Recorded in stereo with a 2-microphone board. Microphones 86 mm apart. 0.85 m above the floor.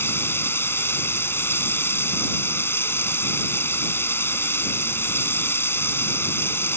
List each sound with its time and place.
0.0 s running water: 25° left (ahead or behind)